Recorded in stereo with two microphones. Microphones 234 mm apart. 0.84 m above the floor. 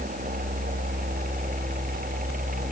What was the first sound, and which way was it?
Only background noise.